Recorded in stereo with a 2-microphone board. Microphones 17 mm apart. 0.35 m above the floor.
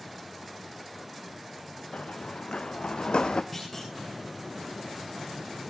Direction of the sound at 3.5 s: 15° left (ahead or behind).